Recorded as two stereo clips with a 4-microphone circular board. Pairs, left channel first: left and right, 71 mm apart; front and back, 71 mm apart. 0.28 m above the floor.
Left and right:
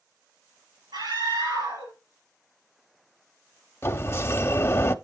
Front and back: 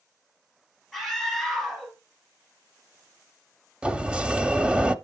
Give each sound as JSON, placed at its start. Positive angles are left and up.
{"t": 0.9, "sound": "a scream", "azimuth_deg": -95, "distance_m": 6.5}
{"t": 3.8, "sound": "a sliding door", "azimuth_deg": 115, "distance_m": 0.6}